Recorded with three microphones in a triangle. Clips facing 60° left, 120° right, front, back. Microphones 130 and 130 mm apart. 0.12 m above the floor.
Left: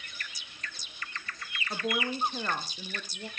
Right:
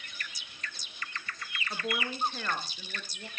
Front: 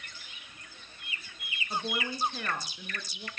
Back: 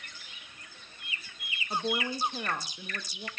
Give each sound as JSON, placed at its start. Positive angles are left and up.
{"t": 1.7, "sound": "a woman speaking", "azimuth_deg": 120, "distance_m": 2.0}